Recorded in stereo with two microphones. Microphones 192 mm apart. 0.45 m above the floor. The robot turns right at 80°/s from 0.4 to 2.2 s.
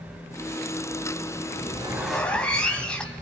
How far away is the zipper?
About 3 m.